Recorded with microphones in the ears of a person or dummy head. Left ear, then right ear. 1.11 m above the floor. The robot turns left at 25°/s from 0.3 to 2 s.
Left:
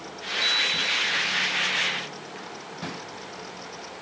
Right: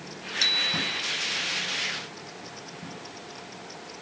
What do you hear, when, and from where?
0.4 s a bicycle bell: 75° right (ahead or behind); by 1.1 s 85° right